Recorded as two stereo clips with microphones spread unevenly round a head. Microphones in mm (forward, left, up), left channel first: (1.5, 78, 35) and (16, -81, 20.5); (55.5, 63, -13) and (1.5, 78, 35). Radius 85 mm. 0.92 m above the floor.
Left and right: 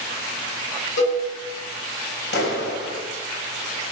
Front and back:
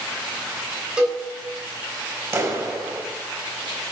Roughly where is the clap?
Behind left.